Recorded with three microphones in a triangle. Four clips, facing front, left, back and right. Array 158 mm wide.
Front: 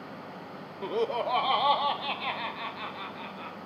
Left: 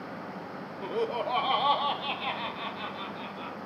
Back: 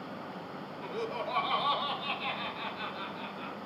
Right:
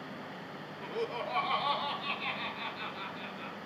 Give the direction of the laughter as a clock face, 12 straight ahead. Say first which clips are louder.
Left 6 dB, front 8 dB; 11 o'clock.